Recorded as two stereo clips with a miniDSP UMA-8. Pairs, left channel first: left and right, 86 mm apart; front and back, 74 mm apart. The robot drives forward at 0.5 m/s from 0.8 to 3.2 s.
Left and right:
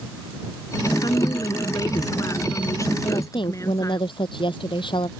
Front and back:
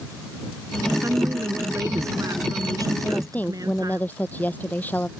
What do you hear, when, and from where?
1.0 s a woman speaking: 130° left; by 4.0 s 145° left
3.0 s a woman speaking: 65° left